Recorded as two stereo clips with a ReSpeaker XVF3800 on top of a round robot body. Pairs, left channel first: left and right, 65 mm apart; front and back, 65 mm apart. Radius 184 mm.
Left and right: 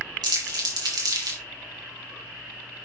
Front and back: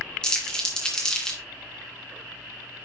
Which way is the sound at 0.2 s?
75° right.